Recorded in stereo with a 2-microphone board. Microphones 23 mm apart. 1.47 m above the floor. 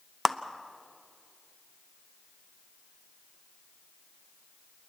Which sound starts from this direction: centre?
A clap, at 0.2 s.